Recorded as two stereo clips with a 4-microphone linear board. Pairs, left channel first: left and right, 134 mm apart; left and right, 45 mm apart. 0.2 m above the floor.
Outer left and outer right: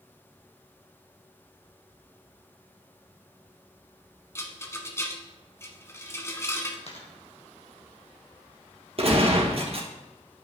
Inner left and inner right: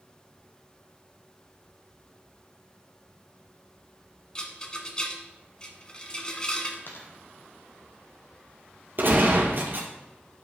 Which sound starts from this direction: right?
A gunshot, at 9.0 s.